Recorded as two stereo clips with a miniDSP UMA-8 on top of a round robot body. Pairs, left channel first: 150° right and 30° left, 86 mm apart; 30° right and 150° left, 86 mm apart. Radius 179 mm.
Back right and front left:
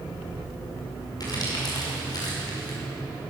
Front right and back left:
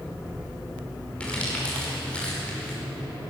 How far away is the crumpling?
About 5.5 m.